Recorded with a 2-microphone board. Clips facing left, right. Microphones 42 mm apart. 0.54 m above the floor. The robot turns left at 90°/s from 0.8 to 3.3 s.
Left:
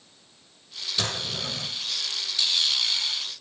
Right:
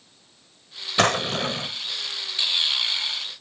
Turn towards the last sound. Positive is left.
turn(degrees=65)